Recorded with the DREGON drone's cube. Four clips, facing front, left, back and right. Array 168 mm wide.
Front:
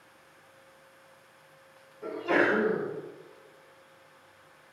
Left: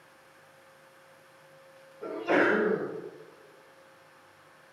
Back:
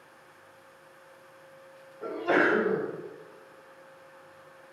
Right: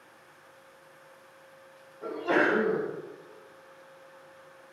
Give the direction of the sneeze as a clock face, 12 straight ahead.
6 o'clock.